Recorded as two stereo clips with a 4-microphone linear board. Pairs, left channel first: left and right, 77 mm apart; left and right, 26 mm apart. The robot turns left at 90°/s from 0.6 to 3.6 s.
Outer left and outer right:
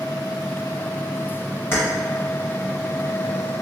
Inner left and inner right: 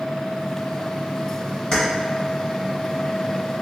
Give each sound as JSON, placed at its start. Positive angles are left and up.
{"t": 1.7, "sound": "keys jangling", "side_deg": 30, "distance_m": 1.9}